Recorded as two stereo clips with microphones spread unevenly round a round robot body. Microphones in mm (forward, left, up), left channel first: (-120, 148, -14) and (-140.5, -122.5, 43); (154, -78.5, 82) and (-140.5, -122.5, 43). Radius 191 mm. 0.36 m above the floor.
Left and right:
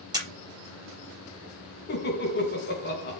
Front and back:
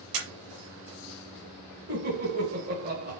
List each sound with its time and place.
0.1 s a camera shutter: 170° right, 4.5 m
1.9 s laughter: 130° left, 4 m